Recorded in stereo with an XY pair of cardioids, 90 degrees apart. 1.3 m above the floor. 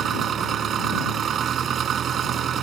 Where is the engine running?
65° right.